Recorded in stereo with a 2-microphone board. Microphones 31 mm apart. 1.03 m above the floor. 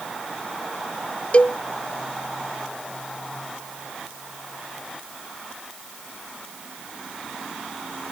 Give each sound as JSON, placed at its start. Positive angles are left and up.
{"t": 1.3, "sound": "a cowbell", "side_deg": 40}